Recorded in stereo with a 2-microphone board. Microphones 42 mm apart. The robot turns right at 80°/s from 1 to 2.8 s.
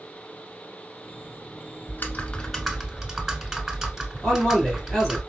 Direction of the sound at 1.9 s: 115° left.